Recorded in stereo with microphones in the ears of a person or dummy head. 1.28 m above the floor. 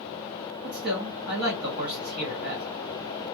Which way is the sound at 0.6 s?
50° right (ahead or behind).